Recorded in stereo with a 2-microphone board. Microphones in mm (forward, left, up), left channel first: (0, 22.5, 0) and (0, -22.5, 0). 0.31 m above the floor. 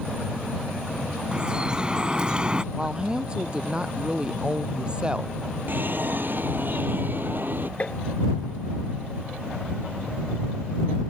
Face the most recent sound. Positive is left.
turn(degrees=35)  # may be behind; listen again after turning